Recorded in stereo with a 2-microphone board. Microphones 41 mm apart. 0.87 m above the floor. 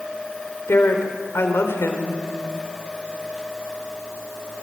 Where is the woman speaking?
75° left (ahead or behind), 4 m.